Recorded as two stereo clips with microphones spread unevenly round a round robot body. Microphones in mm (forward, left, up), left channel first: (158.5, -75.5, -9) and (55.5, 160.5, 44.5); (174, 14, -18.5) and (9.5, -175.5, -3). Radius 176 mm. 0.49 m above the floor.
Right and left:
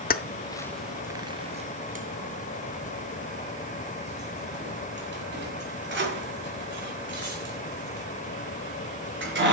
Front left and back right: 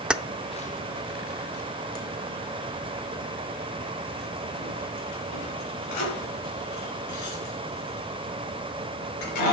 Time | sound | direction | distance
0.1 | keys jangling | 40° right | 0.6 m